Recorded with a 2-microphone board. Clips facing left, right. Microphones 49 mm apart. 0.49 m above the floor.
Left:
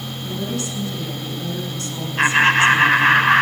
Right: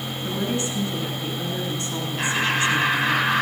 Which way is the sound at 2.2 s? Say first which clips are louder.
Left 9 dB; 45° left (ahead or behind).